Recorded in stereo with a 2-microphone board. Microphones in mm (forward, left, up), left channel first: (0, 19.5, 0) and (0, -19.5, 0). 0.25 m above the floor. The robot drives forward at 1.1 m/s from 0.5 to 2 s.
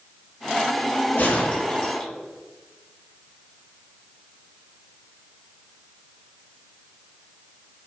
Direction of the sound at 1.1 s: 50° left (ahead or behind).